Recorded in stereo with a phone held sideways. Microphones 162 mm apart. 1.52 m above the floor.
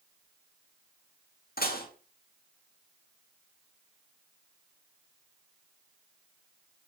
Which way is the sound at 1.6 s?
70° left (ahead or behind).